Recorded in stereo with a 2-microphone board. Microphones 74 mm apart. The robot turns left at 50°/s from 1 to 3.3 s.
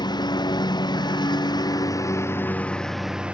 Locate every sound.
0.0 s a lawn mower: 100° left; by 3.4 s 15° right